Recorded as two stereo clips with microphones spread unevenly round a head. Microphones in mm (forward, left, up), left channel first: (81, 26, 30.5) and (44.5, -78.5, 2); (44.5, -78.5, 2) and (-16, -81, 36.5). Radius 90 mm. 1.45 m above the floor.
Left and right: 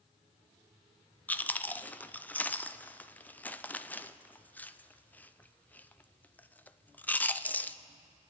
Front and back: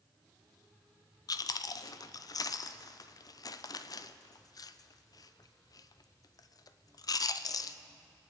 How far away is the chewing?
About 0.5 m.